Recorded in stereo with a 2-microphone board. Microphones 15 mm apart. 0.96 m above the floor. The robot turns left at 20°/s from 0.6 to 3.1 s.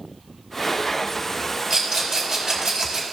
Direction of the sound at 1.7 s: 50° right (ahead or behind).